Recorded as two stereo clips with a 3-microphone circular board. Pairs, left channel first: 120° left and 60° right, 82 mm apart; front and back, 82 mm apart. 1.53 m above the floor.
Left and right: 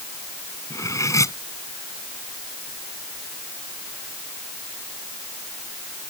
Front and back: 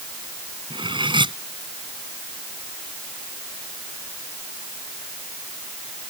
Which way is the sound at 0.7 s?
170° left.